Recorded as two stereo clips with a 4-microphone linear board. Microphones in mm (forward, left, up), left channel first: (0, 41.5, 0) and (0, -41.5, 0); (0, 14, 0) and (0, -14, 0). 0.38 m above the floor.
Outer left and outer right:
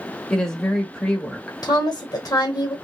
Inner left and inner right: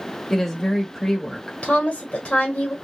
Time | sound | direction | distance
0.3 | a woman speaking | 10° left (ahead or behind) | 1.1 m
1.6 | a woman speaking | 50° left (ahead or behind) | 1.3 m